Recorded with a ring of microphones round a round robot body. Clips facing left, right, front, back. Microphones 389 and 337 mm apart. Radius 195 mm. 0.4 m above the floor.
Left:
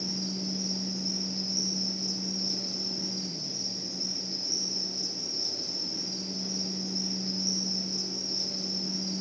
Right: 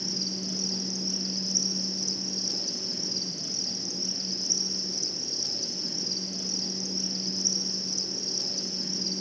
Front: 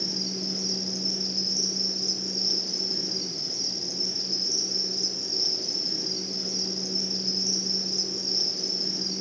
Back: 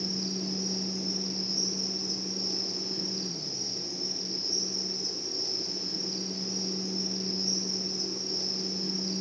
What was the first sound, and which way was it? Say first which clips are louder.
An insect: left 1 dB, even; 45° right.